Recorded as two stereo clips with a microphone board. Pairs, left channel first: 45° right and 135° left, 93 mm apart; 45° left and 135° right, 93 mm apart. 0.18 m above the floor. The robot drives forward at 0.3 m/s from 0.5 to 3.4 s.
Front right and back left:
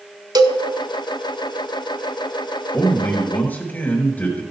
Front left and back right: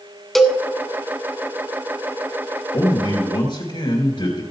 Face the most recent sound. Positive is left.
turn(degrees=25)